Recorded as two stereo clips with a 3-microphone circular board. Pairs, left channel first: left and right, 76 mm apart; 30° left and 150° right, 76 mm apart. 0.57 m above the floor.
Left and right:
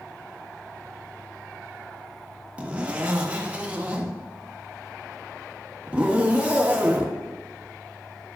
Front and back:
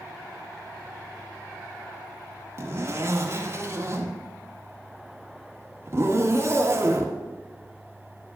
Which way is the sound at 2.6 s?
150° right.